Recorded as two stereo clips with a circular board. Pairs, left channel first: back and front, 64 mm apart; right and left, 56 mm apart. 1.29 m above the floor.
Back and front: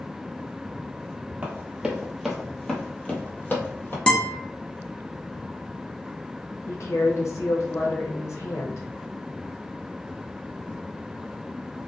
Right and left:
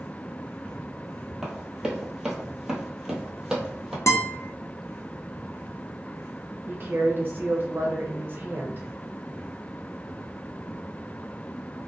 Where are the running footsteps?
20° left, 1.3 m; by 4.0 s 165° left, 1.6 m.